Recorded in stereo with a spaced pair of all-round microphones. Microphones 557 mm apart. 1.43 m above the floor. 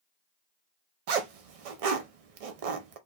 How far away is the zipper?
About 0.6 m.